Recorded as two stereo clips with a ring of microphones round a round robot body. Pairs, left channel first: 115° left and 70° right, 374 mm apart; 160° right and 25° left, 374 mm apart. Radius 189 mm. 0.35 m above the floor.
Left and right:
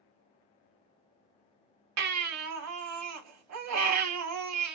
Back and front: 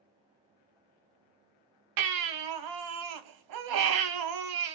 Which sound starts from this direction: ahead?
A baby crying, at 2.0 s.